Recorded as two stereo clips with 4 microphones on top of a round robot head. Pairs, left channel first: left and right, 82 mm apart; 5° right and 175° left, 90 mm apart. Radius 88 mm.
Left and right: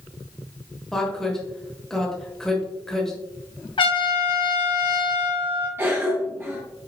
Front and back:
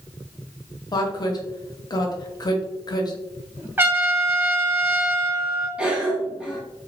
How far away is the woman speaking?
About 0.9 m.